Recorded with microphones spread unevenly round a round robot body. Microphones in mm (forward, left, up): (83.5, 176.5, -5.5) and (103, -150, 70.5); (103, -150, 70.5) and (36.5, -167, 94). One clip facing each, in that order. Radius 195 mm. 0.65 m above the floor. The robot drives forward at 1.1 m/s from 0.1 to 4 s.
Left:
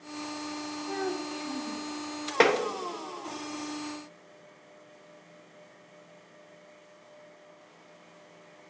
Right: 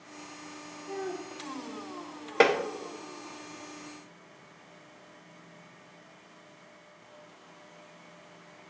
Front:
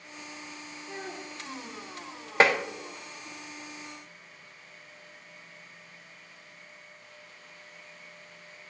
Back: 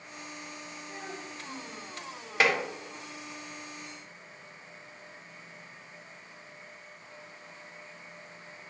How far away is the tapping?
About 1.0 m.